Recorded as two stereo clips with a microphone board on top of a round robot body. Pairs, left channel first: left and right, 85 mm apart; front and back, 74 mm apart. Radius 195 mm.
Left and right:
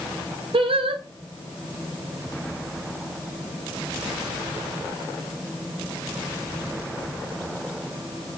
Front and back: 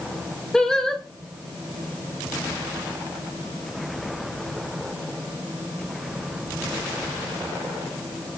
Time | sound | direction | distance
0.5 | singing | 80° right | 2.5 m